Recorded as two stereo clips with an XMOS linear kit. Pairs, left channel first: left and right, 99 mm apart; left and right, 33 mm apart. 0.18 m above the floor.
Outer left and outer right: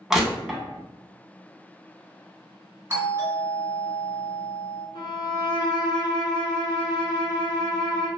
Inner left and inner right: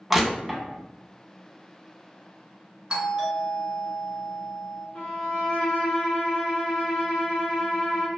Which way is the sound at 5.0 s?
50° left (ahead or behind).